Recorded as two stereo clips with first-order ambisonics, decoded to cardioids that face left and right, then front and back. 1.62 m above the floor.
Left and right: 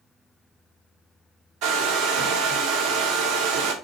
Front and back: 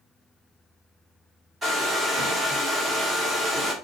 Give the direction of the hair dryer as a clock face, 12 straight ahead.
4 o'clock.